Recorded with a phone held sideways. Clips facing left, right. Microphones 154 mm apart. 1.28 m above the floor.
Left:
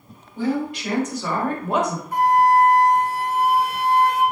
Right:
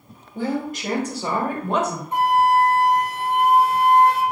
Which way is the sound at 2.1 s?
25° right (ahead or behind).